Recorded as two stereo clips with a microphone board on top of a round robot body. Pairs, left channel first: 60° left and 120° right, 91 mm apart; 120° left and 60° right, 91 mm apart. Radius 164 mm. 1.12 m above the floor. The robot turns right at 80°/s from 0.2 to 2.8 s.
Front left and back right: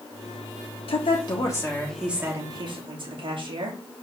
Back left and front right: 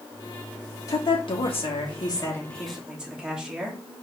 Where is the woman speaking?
65° left, 2.5 m; by 3.8 s 140° right, 2.5 m.